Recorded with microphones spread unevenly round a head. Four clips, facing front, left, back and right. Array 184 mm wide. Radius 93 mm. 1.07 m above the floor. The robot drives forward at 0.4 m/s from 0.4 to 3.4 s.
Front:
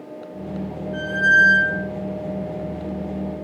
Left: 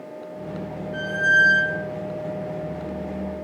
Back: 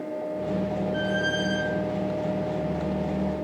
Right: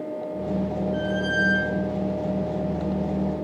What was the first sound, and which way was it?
A squeak, 65° left.